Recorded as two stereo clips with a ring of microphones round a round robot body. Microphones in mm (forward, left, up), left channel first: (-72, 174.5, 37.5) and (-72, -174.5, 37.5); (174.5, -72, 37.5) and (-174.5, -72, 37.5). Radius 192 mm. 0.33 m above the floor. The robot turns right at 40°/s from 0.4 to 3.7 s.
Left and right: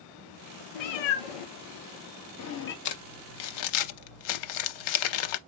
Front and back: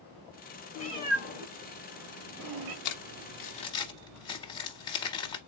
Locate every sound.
0.8 s a cat meowing: 70° left, 1.1 m; by 2.8 s 150° left, 1.1 m
2.9 s crumpling: 45° left, 0.6 m; by 5.4 s 80° left, 0.6 m